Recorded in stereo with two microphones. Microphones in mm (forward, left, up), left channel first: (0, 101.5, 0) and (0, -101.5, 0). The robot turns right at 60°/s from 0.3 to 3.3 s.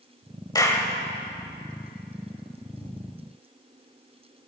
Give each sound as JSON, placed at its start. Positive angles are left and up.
{"t": 0.6, "sound": "a clap", "side_deg": 20, "distance_m": 0.9}